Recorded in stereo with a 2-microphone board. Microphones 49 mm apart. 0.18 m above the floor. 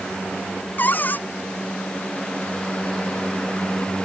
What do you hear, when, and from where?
0.8 s a cupboard door: 40° left (ahead or behind)